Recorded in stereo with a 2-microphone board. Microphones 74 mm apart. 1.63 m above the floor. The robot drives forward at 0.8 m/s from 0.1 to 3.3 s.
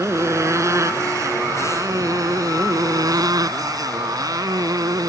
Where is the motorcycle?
40° right (ahead or behind); by 5.1 s 60° right (ahead or behind).